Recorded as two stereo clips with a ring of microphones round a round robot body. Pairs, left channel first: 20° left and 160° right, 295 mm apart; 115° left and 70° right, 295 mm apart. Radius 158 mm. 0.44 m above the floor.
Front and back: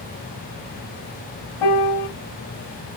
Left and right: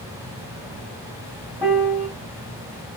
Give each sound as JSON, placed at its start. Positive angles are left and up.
{"t": 1.6, "sound": "a piano", "azimuth_deg": 15, "distance_m": 1.0}